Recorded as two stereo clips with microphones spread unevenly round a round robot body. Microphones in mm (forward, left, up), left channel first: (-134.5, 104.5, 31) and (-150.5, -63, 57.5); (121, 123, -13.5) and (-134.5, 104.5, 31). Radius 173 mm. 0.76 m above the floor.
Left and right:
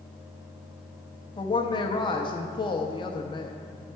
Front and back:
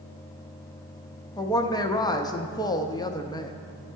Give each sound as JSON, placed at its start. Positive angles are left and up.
{"t": 1.4, "sound": "a woman speaking", "azimuth_deg": 60, "distance_m": 0.6}